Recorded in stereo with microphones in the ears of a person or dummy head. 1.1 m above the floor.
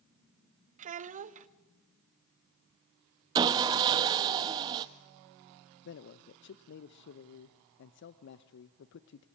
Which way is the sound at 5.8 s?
60° left (ahead or behind).